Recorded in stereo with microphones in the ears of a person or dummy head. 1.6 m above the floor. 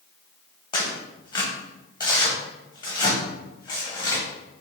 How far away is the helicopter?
I don't hear a helicopter.